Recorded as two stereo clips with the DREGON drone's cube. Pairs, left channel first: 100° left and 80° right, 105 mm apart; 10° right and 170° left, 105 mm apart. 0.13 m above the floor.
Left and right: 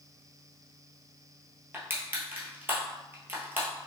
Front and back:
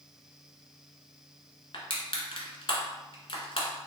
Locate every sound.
1.7 s crushing: 15° right, 1.2 m